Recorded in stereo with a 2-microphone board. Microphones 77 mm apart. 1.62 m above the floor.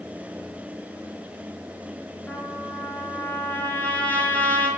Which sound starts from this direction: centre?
A trumpet, at 2.3 s.